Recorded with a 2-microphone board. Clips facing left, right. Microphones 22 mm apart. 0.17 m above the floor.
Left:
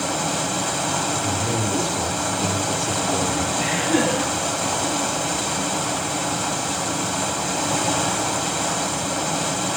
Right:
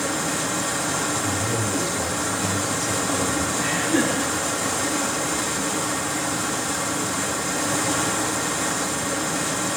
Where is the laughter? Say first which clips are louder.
Left 2 dB; 80° left, 8 m.